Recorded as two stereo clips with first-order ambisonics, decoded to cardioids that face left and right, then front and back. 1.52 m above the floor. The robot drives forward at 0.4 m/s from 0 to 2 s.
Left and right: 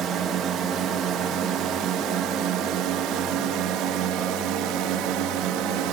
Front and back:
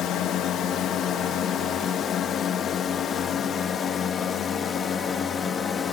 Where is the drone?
45° right; by 5.9 s 70° right.